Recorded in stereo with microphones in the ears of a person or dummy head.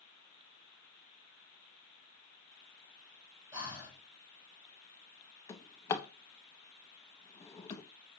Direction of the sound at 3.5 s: 20° right (ahead or behind).